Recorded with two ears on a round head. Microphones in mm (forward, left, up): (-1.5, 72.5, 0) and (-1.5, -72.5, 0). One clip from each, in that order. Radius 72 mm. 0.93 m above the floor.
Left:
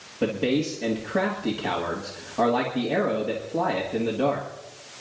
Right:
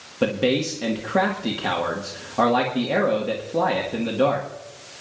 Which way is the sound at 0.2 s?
35° right (ahead or behind).